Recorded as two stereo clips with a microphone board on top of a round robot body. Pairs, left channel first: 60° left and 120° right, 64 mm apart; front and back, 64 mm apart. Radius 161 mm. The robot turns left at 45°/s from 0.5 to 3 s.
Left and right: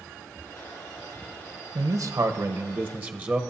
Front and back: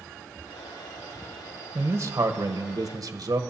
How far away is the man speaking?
About 1.2 m.